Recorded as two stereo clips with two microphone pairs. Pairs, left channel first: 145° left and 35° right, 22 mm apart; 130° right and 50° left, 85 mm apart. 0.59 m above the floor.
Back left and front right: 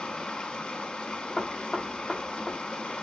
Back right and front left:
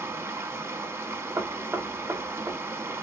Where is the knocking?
80° left, 1.3 m.